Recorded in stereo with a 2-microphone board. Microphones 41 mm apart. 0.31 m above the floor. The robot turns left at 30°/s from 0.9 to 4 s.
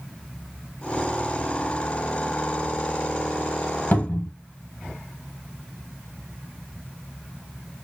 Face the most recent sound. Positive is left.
turn(degrees=45)  # may be behind; listen again after turning